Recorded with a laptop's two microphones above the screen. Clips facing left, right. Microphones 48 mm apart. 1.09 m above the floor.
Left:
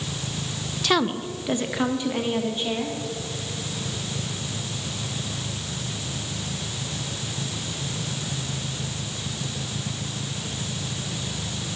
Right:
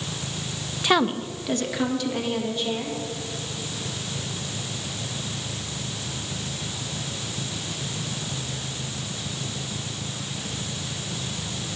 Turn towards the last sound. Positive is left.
turn(degrees=30)  # may be behind; listen again after turning